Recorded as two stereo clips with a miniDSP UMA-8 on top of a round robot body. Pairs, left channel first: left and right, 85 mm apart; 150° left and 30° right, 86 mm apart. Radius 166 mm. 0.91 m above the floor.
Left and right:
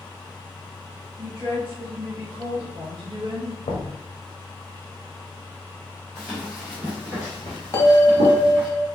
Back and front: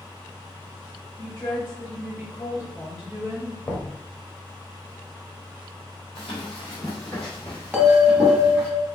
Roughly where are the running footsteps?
Behind.